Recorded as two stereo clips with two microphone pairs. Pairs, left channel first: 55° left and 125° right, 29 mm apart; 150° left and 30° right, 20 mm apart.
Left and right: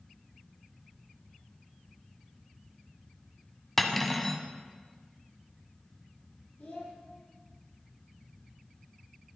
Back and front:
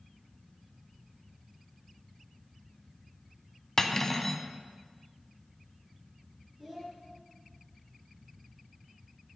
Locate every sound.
3.8 s cutlery clinking: 115° left, 0.7 m
6.6 s a child speaking: 45° left, 3.5 m